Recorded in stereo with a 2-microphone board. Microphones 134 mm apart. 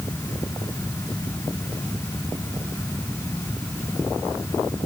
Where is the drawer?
I don't hear a drawer.